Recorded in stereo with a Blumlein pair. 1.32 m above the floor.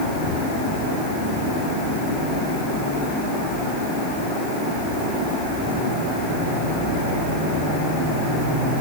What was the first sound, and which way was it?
Only background noise.